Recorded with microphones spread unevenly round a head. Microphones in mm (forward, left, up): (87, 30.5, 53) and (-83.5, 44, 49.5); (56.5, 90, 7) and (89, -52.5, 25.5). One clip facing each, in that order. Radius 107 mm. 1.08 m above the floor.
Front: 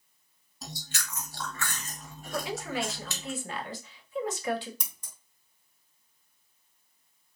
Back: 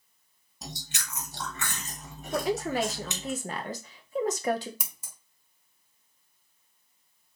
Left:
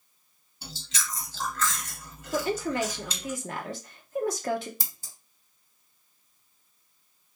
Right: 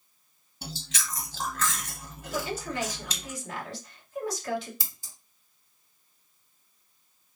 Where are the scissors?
95° left, 1.2 m.